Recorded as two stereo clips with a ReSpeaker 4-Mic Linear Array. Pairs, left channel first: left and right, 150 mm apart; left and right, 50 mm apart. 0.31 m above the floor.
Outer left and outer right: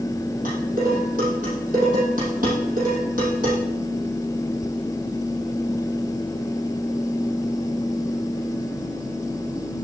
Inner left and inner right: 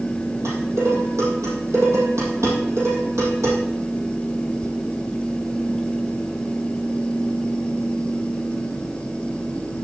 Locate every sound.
0.5 s dishes clattering: 60° right (ahead or behind), 6.5 m